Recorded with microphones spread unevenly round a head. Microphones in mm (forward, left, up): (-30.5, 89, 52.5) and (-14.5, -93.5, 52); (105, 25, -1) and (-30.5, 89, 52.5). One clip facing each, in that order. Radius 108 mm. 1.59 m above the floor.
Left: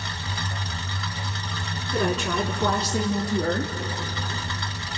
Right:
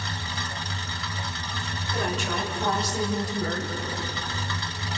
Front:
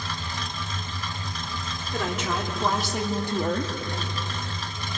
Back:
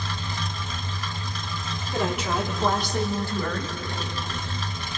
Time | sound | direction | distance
1.9 | a woman speaking | 80° left | 4 m